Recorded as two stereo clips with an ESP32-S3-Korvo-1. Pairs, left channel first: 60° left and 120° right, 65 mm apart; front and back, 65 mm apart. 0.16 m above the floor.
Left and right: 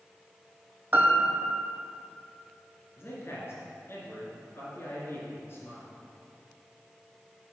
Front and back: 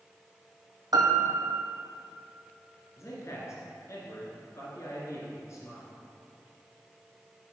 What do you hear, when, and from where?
0.9 s a piano: straight behind, 1.0 m
3.0 s a man speaking: 25° left, 2.0 m